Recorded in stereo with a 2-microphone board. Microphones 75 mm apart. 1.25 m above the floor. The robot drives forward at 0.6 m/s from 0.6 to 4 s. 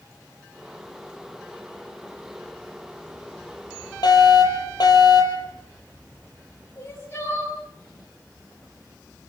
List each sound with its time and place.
4.0 s a fire alarm: 65° left (ahead or behind), 10 m
6.8 s crying: 30° left (ahead or behind), 9 m